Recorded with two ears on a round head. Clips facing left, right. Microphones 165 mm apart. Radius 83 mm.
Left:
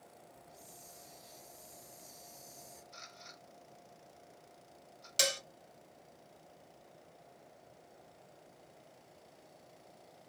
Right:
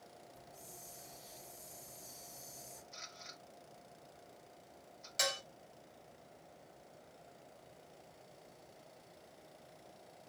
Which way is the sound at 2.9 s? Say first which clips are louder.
Even; 5° right (ahead or behind).